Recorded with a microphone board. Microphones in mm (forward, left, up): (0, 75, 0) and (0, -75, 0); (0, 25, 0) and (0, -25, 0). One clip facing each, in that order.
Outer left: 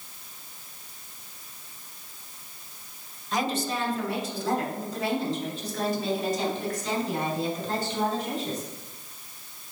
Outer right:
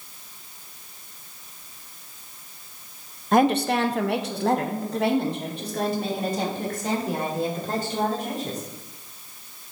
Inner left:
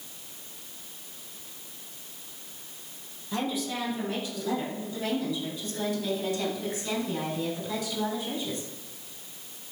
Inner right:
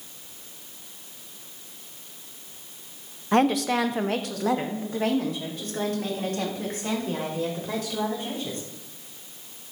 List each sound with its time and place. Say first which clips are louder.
3.3 s a woman speaking: outer right 9 dB, inner right 10 dB; 60° right (ahead or behind), 0.6 m; by 8.6 s 55° right (ahead or behind), 5 m